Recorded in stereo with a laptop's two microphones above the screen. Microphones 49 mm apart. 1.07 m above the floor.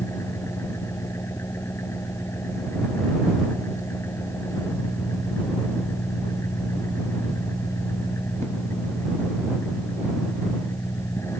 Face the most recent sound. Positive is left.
turn(degrees=65)  # may be behind; listen again after turning